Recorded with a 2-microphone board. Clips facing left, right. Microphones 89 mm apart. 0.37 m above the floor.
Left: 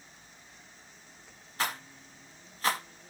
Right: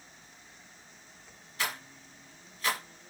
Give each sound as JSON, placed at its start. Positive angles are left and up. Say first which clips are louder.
{"t": 1.6, "sound": "a rattle", "louder": "left 2 dB", "side_deg": 40, "distance_m": 0.7}